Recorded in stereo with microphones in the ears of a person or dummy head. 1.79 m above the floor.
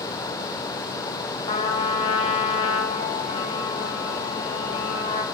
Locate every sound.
1.5 s a trumpet: 30° left (ahead or behind), 1.9 m